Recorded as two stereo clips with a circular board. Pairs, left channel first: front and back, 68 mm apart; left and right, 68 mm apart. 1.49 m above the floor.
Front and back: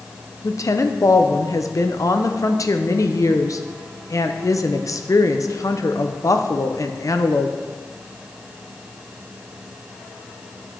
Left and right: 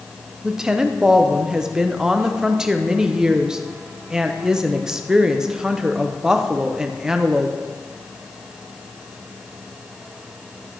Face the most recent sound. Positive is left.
turn(degrees=-10)